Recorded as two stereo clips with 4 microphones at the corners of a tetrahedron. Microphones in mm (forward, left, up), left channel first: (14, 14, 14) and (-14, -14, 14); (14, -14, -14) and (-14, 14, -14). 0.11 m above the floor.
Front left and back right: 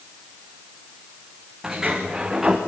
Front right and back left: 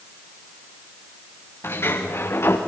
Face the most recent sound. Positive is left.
turn(degrees=-60)